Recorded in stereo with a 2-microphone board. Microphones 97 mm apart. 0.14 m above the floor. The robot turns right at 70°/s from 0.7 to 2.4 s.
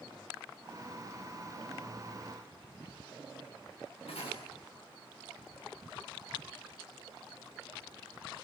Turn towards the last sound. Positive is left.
turn(degrees=80)